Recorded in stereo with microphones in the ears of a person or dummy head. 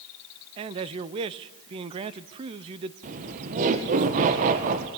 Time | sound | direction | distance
0.6 | a man speaking | 25° right (ahead or behind) | 0.8 m
3.0 | laughter | 45° right (ahead or behind) | 1.6 m